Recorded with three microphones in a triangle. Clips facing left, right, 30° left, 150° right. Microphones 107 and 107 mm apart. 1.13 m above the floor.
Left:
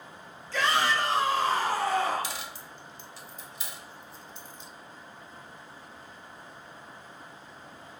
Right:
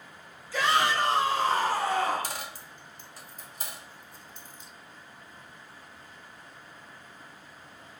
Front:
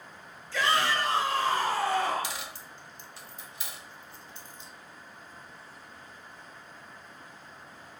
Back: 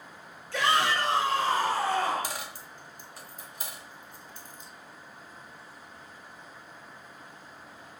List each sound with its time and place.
0.5 s a shout: 175° right, 1.2 m; by 2.4 s 125° right, 1.9 m
2.2 s a dropped coin: 120° right, 0.8 m